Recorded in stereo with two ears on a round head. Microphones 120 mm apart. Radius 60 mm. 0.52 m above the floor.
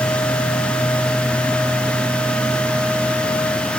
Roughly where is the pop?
No pop in this recording.